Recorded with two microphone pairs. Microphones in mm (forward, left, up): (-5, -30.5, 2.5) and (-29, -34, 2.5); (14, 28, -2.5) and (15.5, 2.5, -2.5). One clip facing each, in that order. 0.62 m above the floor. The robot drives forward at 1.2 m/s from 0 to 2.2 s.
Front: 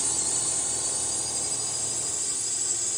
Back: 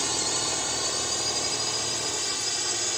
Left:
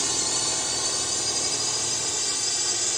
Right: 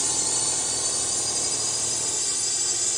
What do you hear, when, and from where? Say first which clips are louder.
0.0 s a drone: back 3 dB, left 1 dB; 155° left; by 3.0 s 160° left